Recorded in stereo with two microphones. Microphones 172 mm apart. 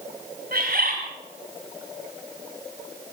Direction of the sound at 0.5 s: 65° right (ahead or behind).